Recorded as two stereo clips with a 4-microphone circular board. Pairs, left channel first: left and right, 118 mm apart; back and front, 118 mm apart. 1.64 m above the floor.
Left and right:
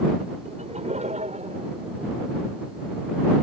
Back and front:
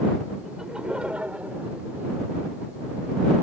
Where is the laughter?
85° right; by 2.3 s 70° right.